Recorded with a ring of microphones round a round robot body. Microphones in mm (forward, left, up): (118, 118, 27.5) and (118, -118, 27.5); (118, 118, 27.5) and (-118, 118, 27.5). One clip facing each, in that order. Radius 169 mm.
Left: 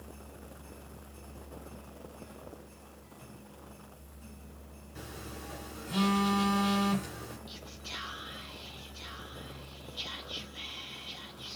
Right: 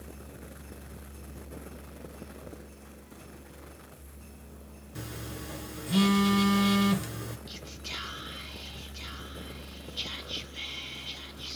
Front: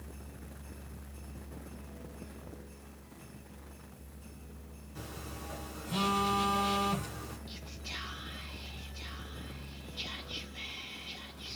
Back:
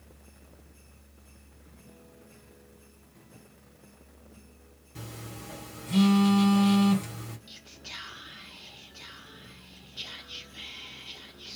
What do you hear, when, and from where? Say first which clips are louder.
5.0 s a phone buzzing: right 4 dB, back 2 dB; 120° right, 1.5 m
7.5 s whispering: right 3 dB, front 4 dB; 110° right, 1.0 m